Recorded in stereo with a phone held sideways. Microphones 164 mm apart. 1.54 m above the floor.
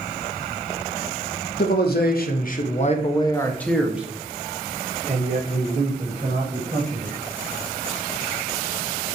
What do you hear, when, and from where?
1.6 s a man speaking: 75° left (ahead or behind), 1.0 m; by 7.1 s 45° right (ahead or behind), 2 m